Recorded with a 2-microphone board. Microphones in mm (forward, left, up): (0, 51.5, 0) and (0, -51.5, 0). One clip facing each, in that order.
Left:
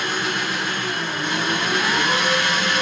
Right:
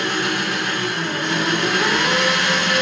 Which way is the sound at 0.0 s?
80° right.